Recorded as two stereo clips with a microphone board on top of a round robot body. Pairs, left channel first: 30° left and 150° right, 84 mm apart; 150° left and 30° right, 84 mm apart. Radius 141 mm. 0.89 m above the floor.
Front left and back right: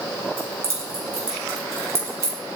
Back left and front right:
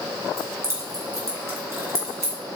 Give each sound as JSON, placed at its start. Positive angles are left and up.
{"t": 0.4, "sound": "keys jangling", "azimuth_deg": -90, "distance_m": 2.5}